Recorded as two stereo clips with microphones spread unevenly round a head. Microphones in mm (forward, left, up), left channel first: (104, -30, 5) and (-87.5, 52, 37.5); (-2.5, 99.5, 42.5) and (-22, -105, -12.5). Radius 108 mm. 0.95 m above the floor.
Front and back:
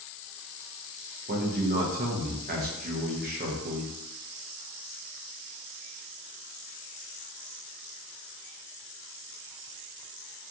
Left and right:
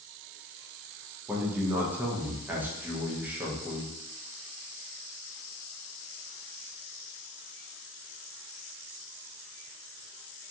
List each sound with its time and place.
1.3 s a man speaking: 160° right, 0.6 m